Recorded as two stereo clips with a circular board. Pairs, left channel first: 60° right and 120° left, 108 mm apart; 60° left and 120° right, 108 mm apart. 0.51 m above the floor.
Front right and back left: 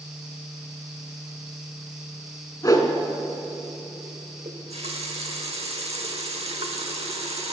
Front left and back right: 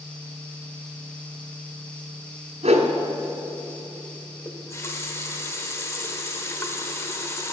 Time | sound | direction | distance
2.6 | a whoosh | 120° right | 1.3 m
4.5 | a running tap | 125° left | 1.1 m